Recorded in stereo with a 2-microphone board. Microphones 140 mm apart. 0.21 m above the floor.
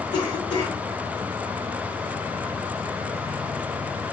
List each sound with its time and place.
0.1 s a cough: 40° left (ahead or behind), 1.9 m